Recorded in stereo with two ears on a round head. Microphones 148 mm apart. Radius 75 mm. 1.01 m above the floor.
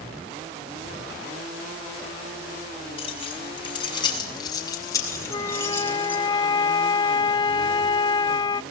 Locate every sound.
3.0 s keys jangling: 35° left (ahead or behind), 6 m; by 6.2 s 10° left (ahead or behind), 5 m
5.3 s a flute: 25° left (ahead or behind), 0.5 m